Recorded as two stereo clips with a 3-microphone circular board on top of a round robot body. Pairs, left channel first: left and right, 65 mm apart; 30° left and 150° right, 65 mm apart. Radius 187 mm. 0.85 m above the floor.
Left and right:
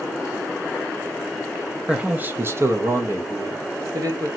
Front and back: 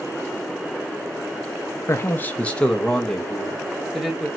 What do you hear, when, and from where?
1.9 s a man speaking: 15° right, 0.6 m; by 4.3 s 65° right, 1.5 m